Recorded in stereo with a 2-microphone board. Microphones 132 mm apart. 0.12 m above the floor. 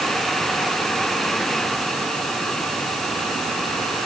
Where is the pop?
I don't hear a pop.